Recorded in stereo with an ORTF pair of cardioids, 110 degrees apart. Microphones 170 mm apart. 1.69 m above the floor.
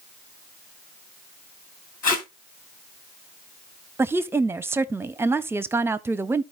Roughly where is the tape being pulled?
Ahead left.